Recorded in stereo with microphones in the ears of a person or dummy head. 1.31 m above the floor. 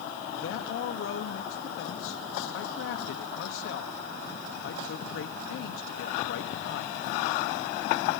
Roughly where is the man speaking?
Left.